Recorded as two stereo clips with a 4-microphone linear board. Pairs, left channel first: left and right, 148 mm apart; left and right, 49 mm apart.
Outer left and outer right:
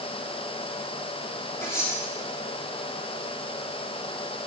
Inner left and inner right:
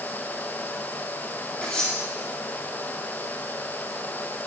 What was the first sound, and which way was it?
Cutlery clinking, 20° left (ahead or behind).